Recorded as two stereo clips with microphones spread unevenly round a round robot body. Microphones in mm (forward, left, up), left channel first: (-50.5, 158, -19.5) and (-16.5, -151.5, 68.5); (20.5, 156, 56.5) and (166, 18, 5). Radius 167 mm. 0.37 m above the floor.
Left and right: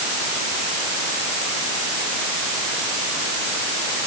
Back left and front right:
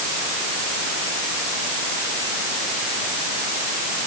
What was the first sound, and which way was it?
Only background noise.